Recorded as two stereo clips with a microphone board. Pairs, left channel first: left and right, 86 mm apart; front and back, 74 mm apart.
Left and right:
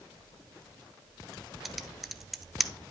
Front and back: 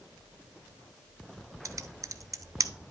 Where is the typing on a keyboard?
Straight behind, 0.6 m.